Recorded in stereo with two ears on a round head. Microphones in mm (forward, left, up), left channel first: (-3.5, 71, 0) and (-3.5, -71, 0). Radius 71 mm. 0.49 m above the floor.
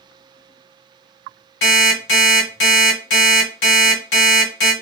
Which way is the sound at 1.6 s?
70° left (ahead or behind).